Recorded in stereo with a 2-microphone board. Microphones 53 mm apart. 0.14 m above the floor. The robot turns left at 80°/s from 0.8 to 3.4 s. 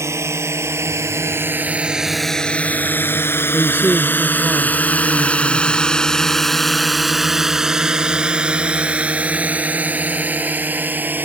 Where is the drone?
65° right (ahead or behind); by 11.3 s 35° right (ahead or behind).